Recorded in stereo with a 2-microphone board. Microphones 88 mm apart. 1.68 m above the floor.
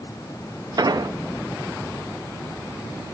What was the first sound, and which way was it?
An explosion, 50° right (ahead or behind).